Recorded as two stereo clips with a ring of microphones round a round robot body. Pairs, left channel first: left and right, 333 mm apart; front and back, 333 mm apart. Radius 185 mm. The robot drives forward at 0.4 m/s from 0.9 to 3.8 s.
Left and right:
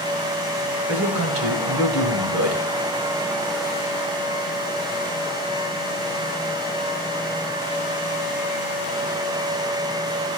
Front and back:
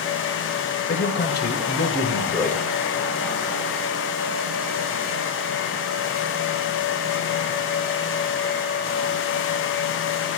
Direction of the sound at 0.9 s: 45° right.